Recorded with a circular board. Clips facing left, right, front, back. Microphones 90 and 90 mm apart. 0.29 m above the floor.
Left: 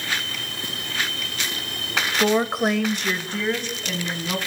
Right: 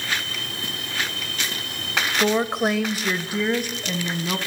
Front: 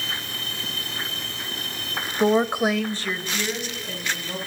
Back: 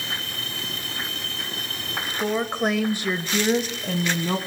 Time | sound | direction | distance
2.2 | a woman speaking | 10° left | 1.0 m